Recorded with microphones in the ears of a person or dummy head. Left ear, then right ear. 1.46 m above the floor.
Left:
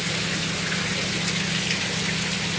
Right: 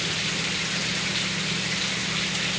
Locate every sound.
Only background noise.